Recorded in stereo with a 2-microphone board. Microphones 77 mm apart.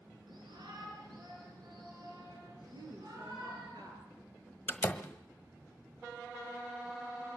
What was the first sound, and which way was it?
A shout, 80° right.